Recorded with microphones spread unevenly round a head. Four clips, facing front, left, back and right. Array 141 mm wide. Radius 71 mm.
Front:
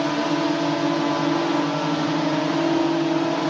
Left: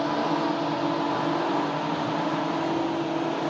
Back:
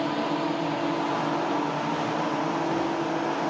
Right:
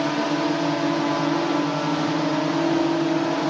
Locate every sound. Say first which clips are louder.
0.0 s a drone: right 2 dB, front 5 dB; 40° right; by 3.5 s 35° right